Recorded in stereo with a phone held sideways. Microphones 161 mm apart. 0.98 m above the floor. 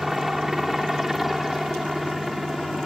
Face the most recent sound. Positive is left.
turn(degrees=0)  # may be behind; listen again after turning